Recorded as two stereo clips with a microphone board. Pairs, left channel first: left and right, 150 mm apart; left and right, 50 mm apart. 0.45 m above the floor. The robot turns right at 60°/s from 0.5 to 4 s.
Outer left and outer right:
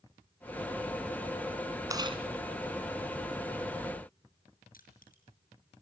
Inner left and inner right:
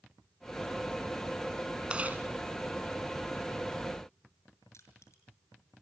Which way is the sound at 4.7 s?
70° left (ahead or behind).